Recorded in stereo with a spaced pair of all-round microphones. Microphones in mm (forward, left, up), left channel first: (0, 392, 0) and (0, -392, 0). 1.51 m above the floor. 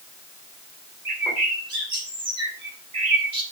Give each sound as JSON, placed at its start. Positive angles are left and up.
{"t": 1.1, "sound": "a bird", "side_deg": -70, "distance_m": 3.0}